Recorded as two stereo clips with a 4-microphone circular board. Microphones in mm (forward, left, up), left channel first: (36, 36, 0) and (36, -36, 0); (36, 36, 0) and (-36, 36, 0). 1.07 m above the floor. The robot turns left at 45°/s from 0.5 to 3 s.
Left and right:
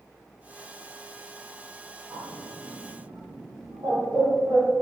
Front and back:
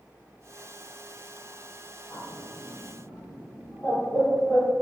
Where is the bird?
45° right, 0.9 m; by 4.7 s 85° right, 0.9 m.